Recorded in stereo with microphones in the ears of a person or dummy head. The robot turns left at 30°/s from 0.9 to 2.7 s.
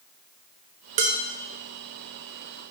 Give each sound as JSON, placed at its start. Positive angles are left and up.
{"t": 1.0, "sound": "dishes clattering", "side_deg": -35, "distance_m": 0.5}